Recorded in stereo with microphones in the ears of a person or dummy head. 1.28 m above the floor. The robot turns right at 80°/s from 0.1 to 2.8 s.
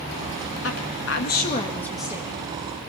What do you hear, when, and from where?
0.6 s a woman speaking: 75° left, 1.9 m; by 2.5 s 135° right, 1.9 m